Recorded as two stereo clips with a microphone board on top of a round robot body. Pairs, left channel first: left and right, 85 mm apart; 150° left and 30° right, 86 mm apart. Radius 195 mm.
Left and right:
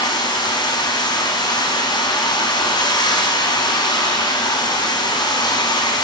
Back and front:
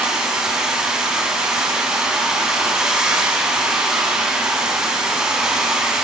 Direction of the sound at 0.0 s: 55° left.